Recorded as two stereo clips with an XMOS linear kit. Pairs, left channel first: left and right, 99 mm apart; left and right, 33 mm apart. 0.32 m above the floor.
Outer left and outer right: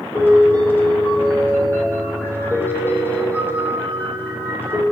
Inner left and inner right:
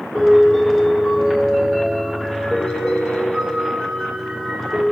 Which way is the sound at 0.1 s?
20° left (ahead or behind).